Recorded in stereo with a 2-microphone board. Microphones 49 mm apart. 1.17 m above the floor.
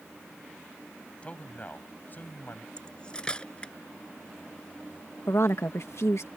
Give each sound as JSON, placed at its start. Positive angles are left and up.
{"t": 1.2, "sound": "a man speaking", "side_deg": 25}
{"t": 2.8, "sound": "cutlery clinking", "side_deg": 20}
{"t": 5.3, "sound": "a woman speaking", "side_deg": 70}